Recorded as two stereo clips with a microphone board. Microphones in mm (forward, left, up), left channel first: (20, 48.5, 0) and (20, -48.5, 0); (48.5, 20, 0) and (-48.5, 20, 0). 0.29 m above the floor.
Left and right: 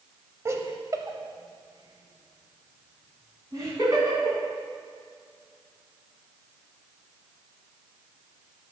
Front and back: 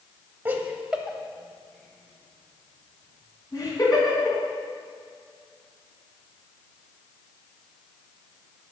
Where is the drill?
No drill in this recording.